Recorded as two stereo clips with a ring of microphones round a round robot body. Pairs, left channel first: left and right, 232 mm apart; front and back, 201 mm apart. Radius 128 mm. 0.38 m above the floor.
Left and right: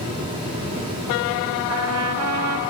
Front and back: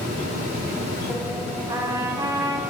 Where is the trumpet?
105° right, 1.0 m.